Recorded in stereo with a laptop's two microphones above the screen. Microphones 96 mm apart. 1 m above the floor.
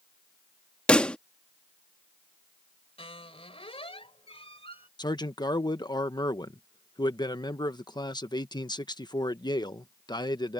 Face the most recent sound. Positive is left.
turn(degrees=45)  # may be behind; listen again after turning